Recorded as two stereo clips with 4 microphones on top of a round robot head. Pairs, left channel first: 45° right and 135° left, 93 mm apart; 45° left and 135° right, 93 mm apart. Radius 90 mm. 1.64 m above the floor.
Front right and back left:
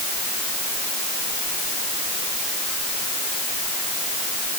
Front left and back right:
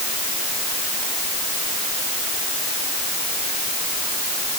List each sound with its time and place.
Only background noise.